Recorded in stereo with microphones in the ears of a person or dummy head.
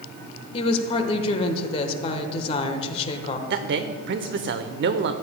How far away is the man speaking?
About 0.8 m.